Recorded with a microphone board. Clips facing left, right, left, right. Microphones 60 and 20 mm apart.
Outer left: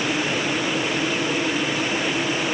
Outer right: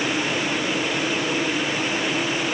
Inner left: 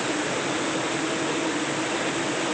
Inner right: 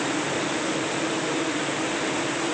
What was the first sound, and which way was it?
Only background noise.